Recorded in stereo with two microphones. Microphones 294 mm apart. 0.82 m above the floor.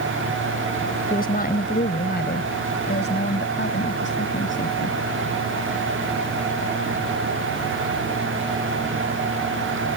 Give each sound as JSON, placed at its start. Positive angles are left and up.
{"t": 1.1, "sound": "a woman speaking", "side_deg": 30}